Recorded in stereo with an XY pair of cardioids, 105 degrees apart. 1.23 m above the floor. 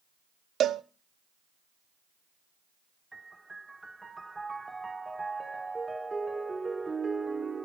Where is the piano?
15° right, 1.0 m.